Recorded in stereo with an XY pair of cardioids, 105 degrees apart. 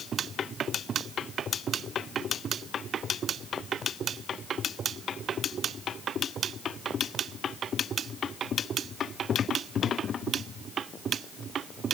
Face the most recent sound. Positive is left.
No sound to turn to.